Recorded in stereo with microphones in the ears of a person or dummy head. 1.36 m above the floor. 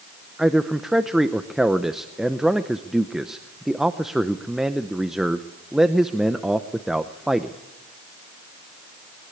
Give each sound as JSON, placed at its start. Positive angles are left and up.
{"t": 0.4, "sound": "a man speaking", "side_deg": 0, "distance_m": 0.6}